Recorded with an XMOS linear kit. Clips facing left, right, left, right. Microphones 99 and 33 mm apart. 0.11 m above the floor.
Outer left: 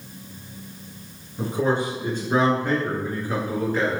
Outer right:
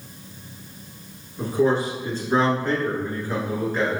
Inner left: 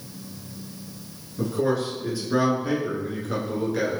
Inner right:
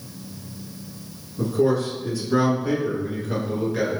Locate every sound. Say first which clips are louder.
1.4 s a man speaking: outer right 2 dB, inner right 3 dB; 25° left (ahead or behind), 1.6 m; by 4.0 s centre (ahead or behind), 1.8 m